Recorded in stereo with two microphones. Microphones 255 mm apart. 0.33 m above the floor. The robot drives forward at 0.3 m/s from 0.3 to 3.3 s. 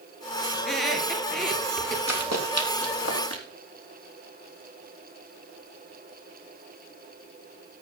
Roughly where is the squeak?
Centre.